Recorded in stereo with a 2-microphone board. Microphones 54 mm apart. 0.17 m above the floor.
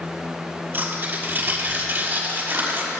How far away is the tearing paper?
About 5 m.